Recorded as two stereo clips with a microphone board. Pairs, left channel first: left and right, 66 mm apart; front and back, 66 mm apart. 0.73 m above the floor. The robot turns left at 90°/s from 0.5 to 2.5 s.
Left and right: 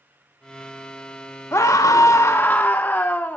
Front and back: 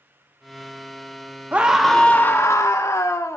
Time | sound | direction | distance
1.5 | a scream | 120° left | 0.7 m